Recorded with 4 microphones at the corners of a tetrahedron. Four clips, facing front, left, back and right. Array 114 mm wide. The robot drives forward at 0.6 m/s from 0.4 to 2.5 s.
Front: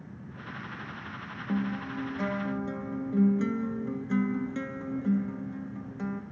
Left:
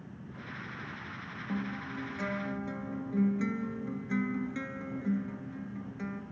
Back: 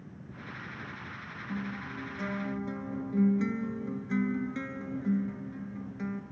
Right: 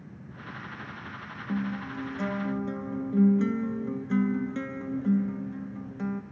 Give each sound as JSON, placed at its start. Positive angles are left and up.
{"t": 1.5, "sound": "a guitar", "azimuth_deg": -20, "distance_m": 1.2}